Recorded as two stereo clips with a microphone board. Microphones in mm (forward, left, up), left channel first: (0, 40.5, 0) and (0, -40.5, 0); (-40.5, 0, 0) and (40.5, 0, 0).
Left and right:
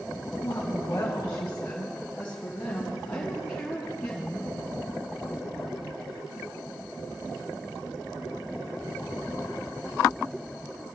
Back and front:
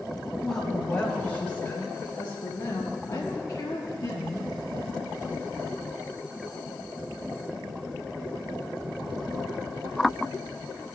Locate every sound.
0.4 s a woman speaking: 100° left, 1.7 m; by 4.5 s straight behind, 3.5 m